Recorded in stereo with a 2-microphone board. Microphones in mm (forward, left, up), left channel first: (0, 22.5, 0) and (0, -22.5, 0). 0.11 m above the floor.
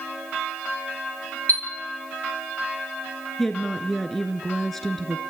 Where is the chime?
40° left (ahead or behind), 4.5 m.